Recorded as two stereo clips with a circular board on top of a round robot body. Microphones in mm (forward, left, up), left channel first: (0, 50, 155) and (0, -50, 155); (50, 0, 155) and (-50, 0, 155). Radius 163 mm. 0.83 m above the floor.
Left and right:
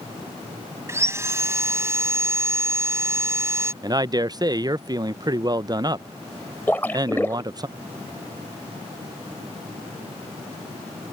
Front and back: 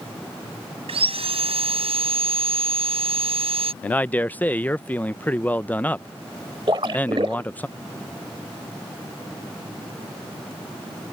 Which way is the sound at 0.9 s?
155° right.